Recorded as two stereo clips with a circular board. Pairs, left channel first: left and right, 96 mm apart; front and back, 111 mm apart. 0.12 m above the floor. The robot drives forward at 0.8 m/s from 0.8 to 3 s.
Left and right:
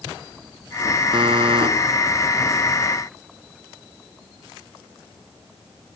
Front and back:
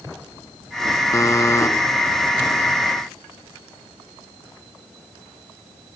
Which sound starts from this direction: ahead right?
A buzzer, at 1.1 s.